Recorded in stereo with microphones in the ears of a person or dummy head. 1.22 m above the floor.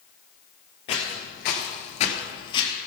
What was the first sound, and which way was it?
Footsteps, 30° left (ahead or behind).